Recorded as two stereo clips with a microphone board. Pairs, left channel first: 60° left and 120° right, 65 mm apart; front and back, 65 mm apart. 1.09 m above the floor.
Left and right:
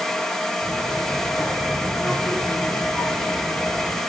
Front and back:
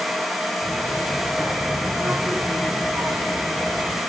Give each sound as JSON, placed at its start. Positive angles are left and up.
{"t": 0.6, "sound": "a child speaking", "azimuth_deg": 115, "distance_m": 4.5}